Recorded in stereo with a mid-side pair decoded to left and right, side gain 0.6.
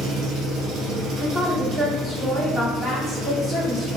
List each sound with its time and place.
0.0 s an engine running: 55° right, 0.8 m
1.2 s a woman speaking: 15° right, 0.9 m